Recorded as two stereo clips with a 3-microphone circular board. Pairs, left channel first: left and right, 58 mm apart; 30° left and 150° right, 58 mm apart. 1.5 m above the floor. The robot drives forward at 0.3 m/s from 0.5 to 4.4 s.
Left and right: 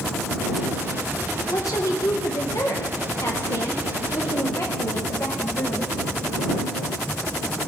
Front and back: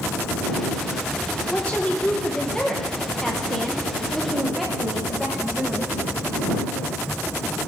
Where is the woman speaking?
90° left, 1.7 m; by 5.9 s 120° left, 1.9 m.